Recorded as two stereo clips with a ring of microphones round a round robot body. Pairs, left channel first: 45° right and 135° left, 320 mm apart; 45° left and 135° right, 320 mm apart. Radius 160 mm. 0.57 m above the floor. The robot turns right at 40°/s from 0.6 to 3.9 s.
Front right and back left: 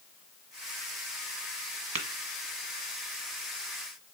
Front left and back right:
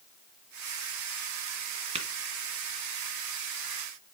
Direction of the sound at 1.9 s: 155° left.